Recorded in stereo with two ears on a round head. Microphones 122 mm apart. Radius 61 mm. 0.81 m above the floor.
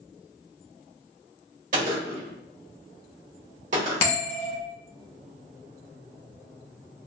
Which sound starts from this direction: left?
A bell, at 4.0 s.